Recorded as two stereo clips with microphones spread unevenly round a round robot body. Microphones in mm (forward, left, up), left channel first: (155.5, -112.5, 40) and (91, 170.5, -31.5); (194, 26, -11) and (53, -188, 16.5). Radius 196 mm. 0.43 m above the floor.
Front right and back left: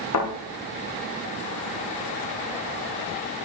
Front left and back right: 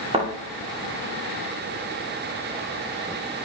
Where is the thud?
55° right, 9 m.